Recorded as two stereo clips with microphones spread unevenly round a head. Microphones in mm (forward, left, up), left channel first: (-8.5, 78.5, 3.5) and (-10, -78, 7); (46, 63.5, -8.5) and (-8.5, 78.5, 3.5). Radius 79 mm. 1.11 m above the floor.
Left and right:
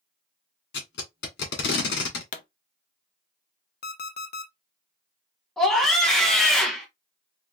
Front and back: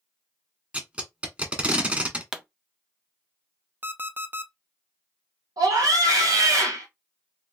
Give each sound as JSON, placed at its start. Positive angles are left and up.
{"t": 0.7, "sound": "tape being pulled", "azimuth_deg": 100, "distance_m": 1.8}
{"t": 2.3, "sound": "a pop", "azimuth_deg": 80, "distance_m": 0.6}
{"t": 3.8, "sound": "an alarm clock", "azimuth_deg": 115, "distance_m": 0.8}
{"t": 5.6, "sound": "a scream", "azimuth_deg": 175, "distance_m": 1.5}